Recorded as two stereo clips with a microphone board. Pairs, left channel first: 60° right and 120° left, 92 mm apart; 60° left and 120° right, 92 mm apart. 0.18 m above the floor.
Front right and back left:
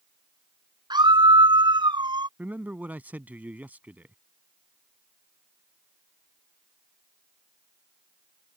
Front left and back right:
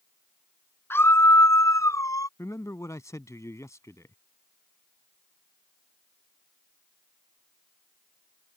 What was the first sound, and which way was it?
A scream, 115° left.